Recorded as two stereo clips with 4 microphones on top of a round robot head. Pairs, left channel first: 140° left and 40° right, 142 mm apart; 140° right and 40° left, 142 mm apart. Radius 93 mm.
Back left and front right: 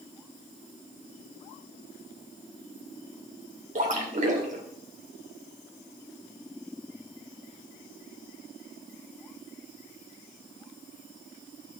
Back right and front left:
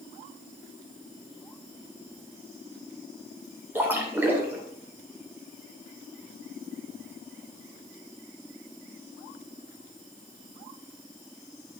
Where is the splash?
35° right, 2.0 m.